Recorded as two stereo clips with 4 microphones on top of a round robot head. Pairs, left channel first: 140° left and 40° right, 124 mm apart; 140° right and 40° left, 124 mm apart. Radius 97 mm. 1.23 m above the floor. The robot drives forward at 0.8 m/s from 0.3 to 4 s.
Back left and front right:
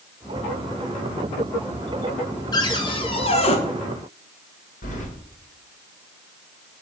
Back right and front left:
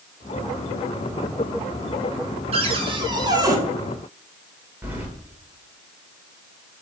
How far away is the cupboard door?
About 2 m.